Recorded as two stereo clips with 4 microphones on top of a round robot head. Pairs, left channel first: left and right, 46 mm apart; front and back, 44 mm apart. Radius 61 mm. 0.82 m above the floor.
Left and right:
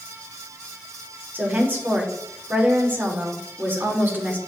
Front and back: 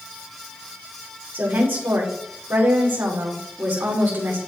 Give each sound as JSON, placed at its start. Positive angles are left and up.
{"t": 1.3, "sound": "a woman speaking", "azimuth_deg": -135, "distance_m": 2.5}